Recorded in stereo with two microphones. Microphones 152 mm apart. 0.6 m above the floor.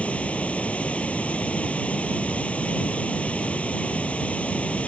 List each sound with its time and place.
0.0 s running water: 10° left (ahead or behind)